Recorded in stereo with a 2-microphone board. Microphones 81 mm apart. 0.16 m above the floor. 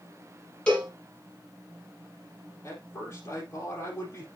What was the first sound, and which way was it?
A cowbell, 15° left (ahead or behind).